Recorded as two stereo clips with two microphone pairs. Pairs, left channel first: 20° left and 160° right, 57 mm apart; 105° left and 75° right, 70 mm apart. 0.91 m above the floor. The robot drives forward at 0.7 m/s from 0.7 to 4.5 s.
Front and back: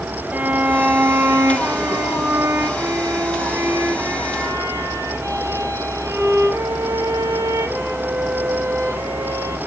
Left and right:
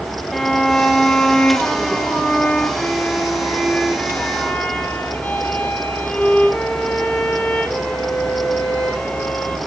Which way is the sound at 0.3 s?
175° right.